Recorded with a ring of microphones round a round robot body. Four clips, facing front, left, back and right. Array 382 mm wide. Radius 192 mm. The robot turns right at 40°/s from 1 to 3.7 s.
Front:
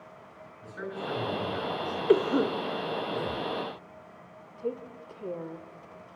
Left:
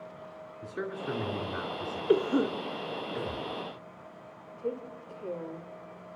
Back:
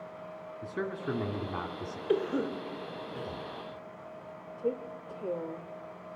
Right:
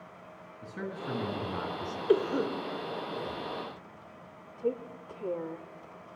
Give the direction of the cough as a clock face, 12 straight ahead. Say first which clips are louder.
Left 1 dB, front 6 dB; 12 o'clock.